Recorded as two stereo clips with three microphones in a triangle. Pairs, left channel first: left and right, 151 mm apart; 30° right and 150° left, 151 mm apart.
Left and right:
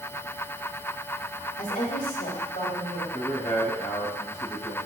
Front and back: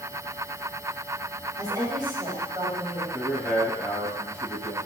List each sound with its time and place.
1.6 s a woman speaking: 85° left, 3 m; by 3.0 s 95° left, 4.5 m
3.1 s a man speaking: 55° left, 4 m